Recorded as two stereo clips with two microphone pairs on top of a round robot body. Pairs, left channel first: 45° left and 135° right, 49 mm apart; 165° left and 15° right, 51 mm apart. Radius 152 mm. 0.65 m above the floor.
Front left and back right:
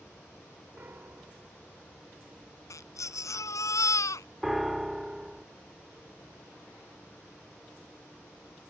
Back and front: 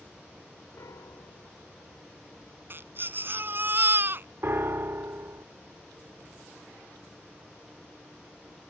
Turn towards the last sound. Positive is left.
turn(degrees=-55)